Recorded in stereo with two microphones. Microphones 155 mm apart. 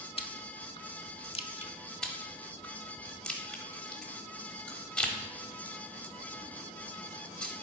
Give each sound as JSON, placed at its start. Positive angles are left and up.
{"t": 0.2, "sound": "chewing", "side_deg": 40, "distance_m": 0.6}
{"t": 2.0, "sound": "chewing", "side_deg": 5, "distance_m": 0.9}